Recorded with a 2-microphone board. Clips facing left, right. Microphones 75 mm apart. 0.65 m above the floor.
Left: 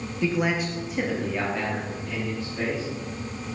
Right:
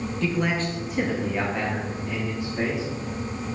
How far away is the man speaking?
About 0.8 m.